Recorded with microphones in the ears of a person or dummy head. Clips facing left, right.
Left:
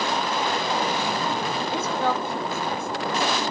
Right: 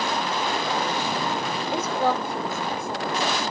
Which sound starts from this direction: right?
A woman speaking, at 1.7 s.